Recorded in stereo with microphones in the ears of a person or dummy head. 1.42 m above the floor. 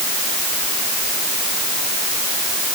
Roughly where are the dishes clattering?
No dishes clattering in this recording.